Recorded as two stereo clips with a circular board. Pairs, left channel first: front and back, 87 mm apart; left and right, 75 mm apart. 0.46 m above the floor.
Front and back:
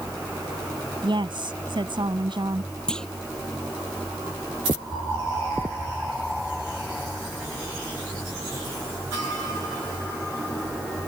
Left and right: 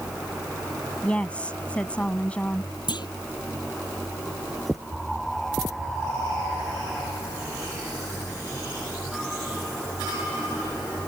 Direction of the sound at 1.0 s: 160° left.